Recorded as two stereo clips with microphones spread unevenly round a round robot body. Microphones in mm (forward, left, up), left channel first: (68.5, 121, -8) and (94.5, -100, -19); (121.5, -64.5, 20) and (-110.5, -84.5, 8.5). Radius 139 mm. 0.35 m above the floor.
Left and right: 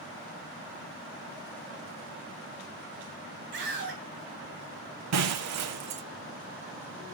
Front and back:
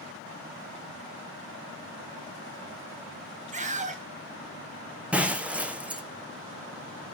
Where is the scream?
125° right, 2.5 m.